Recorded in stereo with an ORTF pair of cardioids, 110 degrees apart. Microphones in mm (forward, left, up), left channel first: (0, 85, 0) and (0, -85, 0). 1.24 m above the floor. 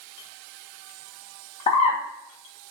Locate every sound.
1.7 s a bird: 40° left, 0.7 m